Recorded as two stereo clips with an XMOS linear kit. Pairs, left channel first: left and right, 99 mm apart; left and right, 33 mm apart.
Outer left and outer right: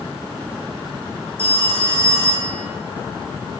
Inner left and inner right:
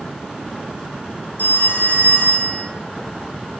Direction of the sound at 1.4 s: 70° left (ahead or behind).